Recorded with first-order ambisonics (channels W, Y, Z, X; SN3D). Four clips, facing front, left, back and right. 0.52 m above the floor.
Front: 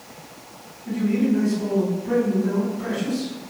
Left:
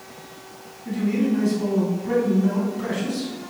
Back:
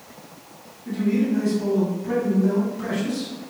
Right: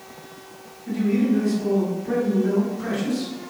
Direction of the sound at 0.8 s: 125° left.